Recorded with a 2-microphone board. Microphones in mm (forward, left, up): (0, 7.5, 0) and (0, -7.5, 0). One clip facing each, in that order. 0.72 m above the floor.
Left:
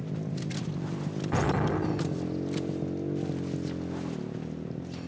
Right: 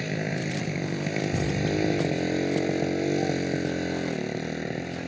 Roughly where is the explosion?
Left.